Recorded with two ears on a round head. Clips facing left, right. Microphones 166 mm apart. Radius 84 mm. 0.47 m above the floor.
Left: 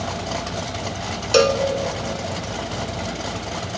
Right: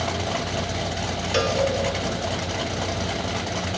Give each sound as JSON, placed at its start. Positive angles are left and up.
{"t": 1.3, "sound": "a cowbell", "side_deg": 60, "distance_m": 1.1}